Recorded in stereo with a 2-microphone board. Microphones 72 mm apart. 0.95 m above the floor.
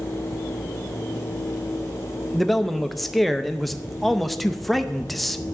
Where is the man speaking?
Centre (ahead or behind), 0.6 m.